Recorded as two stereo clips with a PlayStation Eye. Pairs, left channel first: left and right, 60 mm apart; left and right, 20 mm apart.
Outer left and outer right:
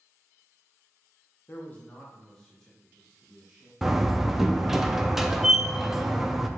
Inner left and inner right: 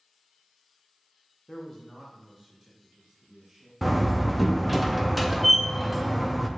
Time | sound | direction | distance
1.5 | a man speaking | 35° left (ahead or behind) | 0.7 m
3.8 | a door slam | 5° right (ahead or behind) | 0.5 m